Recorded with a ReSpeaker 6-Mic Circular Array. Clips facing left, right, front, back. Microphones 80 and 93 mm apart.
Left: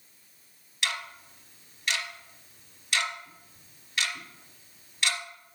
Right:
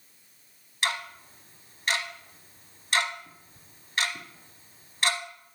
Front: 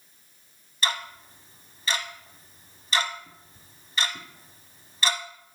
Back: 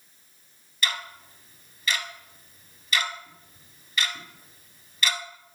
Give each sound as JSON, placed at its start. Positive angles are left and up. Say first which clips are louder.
{"t": 0.8, "sound": "ticking", "louder": "right 3 dB, front 2 dB", "azimuth_deg": -50, "distance_m": 1.0}